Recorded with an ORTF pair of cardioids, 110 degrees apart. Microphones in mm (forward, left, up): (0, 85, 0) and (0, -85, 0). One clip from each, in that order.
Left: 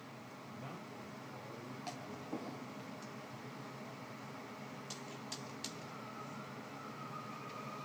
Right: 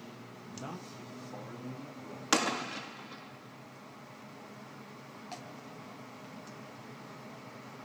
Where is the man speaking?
45° right, 1.3 m; by 2.6 s 70° right, 2.5 m.